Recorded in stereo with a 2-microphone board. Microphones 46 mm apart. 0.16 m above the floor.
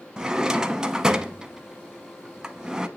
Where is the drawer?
15° right (ahead or behind), 0.6 m.